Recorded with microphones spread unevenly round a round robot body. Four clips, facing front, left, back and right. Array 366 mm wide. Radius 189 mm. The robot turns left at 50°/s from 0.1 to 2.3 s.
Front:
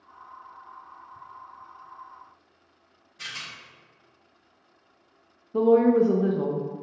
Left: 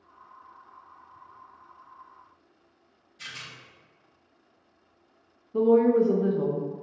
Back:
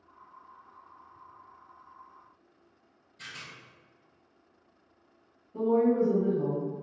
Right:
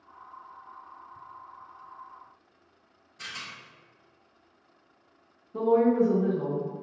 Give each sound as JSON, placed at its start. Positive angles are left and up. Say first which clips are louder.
{"t": 3.2, "sound": "a rattle", "louder": "right 2 dB, front 5 dB", "azimuth_deg": -50, "distance_m": 1.3}
{"t": 5.5, "sound": "a woman speaking", "louder": "left 2 dB, front 6 dB", "azimuth_deg": 10, "distance_m": 0.6}